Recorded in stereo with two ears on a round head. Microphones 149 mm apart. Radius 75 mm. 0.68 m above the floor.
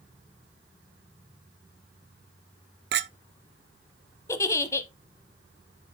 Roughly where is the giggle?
Centre.